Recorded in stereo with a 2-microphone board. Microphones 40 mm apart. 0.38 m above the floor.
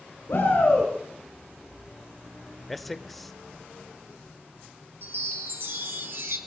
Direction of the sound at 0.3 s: 65° left (ahead or behind).